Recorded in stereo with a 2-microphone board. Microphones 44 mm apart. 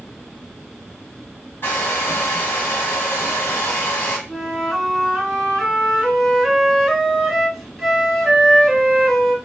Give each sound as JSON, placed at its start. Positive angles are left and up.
{"t": 1.6, "sound": "a hair dryer", "side_deg": 60, "distance_m": 1.3}
{"t": 4.3, "sound": "a flute", "side_deg": -5, "distance_m": 1.6}